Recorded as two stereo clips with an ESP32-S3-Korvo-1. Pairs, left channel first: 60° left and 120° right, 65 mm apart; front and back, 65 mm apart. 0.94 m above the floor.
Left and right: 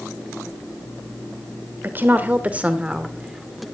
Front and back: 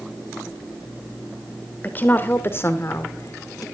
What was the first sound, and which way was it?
A woman speaking, 65° right.